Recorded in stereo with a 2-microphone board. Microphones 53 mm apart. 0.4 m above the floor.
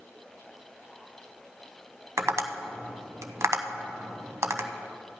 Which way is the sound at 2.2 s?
70° right (ahead or behind).